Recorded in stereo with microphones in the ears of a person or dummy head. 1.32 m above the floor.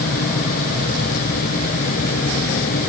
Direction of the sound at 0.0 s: 45° left (ahead or behind).